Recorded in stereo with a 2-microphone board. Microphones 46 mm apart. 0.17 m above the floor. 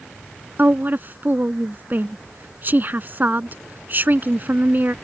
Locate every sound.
0.6 s a woman speaking: 45° right (ahead or behind)